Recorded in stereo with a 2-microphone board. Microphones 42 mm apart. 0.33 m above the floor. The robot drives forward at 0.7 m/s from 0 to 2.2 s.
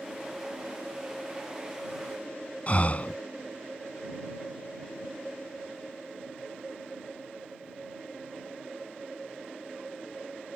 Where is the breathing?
40° left (ahead or behind).